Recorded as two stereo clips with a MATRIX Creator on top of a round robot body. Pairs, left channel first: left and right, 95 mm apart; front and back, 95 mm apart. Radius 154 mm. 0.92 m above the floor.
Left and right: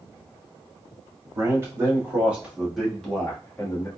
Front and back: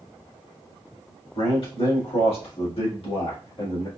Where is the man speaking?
30° right, 1.9 m; by 3.9 s 25° left, 1.7 m.